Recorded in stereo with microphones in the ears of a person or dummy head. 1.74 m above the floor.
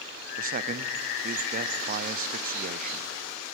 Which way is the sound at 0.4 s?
45° right (ahead or behind).